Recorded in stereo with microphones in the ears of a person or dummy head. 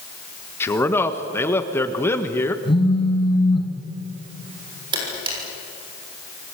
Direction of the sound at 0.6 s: 15° left (ahead or behind).